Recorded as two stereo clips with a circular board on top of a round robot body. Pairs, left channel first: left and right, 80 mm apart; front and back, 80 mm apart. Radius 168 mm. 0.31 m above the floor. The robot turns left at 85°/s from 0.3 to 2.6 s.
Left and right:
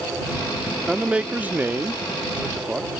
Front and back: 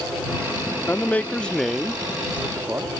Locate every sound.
0.9 s a man speaking: 10° right; by 2.9 s 160° right